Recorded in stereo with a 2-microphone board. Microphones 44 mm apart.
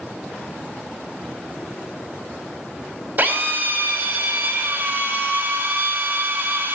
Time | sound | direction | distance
3.2 | a drill | 40° right (ahead or behind) | 3 m